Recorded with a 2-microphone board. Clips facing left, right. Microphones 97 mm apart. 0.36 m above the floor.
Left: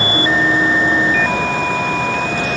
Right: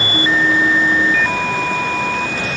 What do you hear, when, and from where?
Only background noise.